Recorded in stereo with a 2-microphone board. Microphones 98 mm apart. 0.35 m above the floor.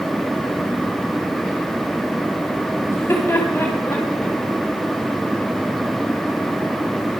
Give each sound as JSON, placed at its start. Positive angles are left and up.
{"t": 2.9, "sound": "laughter", "side_deg": 30, "distance_m": 2.0}